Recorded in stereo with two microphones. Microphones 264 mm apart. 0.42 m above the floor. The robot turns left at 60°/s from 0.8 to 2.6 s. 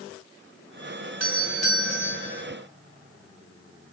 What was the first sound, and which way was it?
A doorbell, 100° right.